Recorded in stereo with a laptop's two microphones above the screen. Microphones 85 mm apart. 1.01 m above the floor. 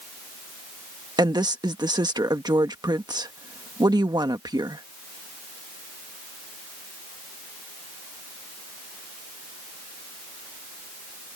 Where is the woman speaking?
55° right (ahead or behind).